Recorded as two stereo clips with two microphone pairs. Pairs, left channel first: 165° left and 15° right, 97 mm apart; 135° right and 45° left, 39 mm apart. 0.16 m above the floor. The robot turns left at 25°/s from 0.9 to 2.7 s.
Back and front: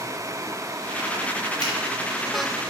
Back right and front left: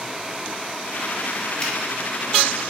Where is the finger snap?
165° left, 1.6 m; by 1.7 s 160° left, 1.6 m.